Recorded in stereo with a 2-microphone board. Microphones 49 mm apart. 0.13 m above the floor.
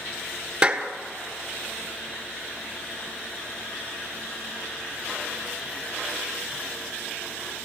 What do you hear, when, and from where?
0.6 s a clap: 20° right (ahead or behind), 1.9 m